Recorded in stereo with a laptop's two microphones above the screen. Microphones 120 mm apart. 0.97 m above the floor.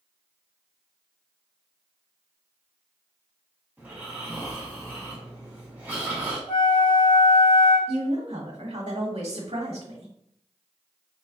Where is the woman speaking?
70° right (ahead or behind), 1.2 m.